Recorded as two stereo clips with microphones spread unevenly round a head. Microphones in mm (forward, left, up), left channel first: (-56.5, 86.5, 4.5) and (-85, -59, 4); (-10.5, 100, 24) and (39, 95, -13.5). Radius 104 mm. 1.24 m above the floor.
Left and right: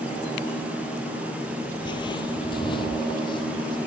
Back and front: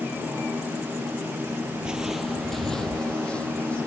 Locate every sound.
1.8 s footsteps: 115° left; by 3.8 s 135° left